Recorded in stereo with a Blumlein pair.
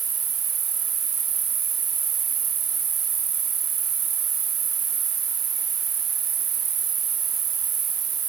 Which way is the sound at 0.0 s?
30° right.